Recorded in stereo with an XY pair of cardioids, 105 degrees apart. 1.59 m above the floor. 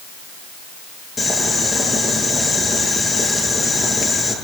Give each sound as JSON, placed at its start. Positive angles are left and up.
{"t": 1.2, "sound": "boiling", "azimuth_deg": 30, "distance_m": 9.5}